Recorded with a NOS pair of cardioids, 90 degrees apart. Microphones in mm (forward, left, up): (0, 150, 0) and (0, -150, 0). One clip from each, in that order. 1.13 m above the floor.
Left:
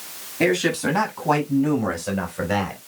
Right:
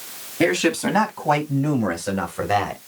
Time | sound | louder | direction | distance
0.4 | a man speaking | right 1 dB | 25° right | 6.5 m